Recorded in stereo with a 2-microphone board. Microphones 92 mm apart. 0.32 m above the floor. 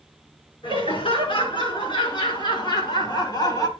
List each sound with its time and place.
0.6 s laughter: 70° left (ahead or behind), 5 m; by 3.7 s 45° left (ahead or behind), 2.5 m